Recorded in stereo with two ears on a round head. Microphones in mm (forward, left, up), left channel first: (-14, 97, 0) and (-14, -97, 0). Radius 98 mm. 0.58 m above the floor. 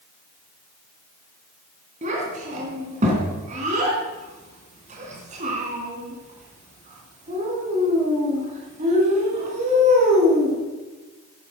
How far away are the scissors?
I don't hear scissors.